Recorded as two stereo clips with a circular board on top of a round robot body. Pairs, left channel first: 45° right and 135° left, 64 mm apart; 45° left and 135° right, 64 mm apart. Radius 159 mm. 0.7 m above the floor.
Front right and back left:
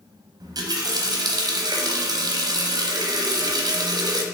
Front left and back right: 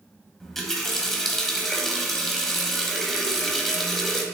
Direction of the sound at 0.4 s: 130° left.